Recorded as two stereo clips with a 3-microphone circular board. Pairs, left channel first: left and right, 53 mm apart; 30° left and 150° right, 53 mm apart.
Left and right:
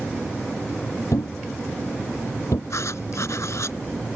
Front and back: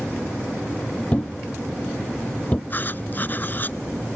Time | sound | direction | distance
1.1 | a thud | 95° left | ?
2.7 | writing | 80° left | ?